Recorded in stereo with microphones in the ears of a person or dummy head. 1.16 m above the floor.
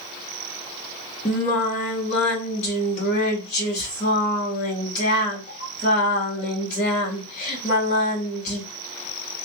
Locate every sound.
1.2 s singing: 50° left (ahead or behind), 1.5 m